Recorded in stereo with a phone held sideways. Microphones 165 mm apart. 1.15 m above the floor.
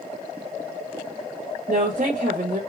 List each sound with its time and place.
1.7 s a woman speaking: 55° right (ahead or behind), 0.8 m